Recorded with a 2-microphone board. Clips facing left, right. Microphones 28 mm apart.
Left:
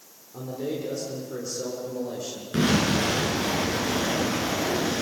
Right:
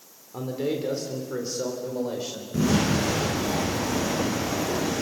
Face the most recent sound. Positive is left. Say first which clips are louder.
# left 1 dB
turn(degrees=70)  # may be behind; listen again after turning